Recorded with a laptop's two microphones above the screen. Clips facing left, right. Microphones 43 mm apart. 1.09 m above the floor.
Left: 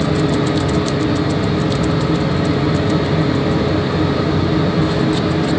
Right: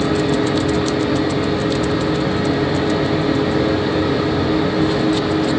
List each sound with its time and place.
0.0 s a fan: 35° right (ahead or behind), 1.2 m